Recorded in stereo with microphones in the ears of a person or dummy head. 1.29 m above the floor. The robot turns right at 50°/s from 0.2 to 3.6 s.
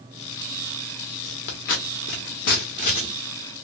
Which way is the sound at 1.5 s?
50° left (ahead or behind).